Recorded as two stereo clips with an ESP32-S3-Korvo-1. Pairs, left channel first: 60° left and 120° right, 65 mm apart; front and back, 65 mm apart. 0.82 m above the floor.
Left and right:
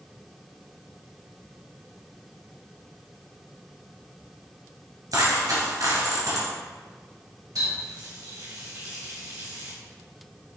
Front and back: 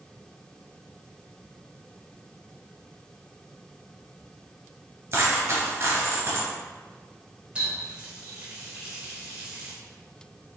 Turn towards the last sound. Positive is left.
turn(degrees=-110)